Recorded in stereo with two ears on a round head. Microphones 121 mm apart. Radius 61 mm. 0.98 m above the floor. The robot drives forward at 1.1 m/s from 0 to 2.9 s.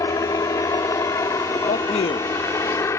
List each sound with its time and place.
0.0 s a helicopter: 25° left (ahead or behind); by 3.0 s 20° left (ahead or behind)
1.7 s a man speaking: 60° left (ahead or behind); by 2.9 s 25° left (ahead or behind)